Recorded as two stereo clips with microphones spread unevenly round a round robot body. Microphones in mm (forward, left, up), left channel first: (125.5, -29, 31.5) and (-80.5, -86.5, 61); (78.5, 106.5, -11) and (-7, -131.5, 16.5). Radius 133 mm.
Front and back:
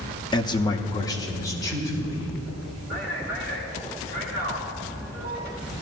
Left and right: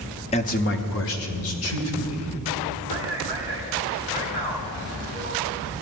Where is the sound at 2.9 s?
140° left, 4 m.